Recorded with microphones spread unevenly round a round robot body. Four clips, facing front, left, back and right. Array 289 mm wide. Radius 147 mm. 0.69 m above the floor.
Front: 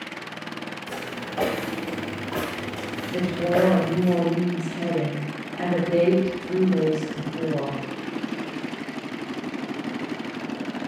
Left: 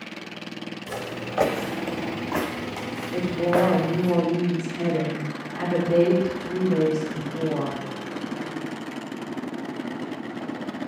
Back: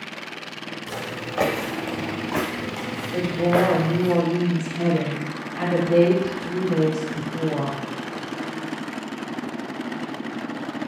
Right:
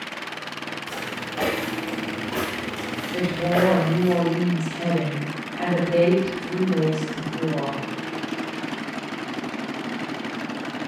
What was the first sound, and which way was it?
Footsteps, 145° left.